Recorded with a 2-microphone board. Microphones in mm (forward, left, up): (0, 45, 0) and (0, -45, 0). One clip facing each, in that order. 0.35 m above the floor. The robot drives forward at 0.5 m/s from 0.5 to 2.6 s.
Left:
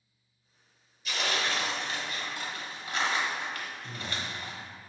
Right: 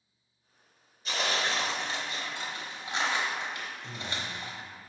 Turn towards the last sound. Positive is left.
turn(degrees=-45)  # may be behind; listen again after turning